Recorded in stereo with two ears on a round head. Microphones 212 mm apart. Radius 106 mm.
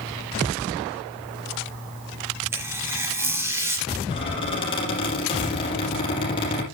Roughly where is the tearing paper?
Centre.